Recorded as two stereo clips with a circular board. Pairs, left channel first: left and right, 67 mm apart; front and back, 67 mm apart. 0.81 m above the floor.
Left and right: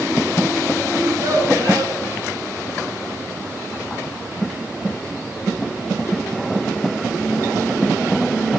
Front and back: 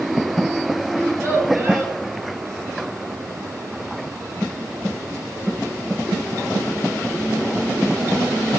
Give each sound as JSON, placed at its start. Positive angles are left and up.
{"t": 0.9, "sound": "a child speaking", "azimuth_deg": -125, "distance_m": 3.5}